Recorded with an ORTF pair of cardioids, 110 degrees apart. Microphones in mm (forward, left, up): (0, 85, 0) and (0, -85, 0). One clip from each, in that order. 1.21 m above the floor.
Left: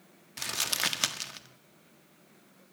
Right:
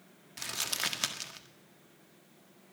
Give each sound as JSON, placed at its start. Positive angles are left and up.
{"t": 0.4, "sound": "crumpling", "azimuth_deg": 20, "distance_m": 1.5}